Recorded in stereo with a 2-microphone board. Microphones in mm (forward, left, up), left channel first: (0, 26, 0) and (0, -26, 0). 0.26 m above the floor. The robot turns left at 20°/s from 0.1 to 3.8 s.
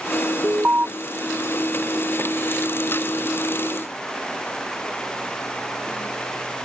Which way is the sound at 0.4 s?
35° right (ahead or behind).